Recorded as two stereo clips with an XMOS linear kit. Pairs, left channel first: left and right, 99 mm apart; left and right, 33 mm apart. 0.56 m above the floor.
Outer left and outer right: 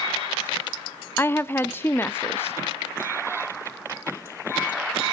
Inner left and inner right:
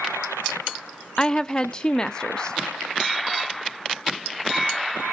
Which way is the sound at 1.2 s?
25° left (ahead or behind).